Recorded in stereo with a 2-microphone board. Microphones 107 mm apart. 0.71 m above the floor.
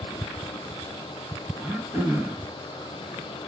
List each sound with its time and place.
1.6 s throat clearing: 20° right (ahead or behind), 0.9 m